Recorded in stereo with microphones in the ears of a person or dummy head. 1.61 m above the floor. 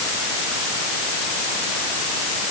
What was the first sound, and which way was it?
Only background noise.